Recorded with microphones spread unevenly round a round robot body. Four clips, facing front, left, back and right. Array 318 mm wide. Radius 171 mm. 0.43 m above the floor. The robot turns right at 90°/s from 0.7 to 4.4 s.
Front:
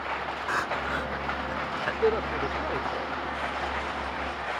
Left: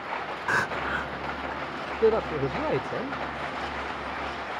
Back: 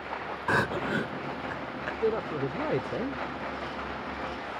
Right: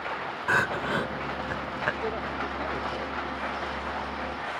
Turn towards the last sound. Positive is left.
turn(degrees=-85)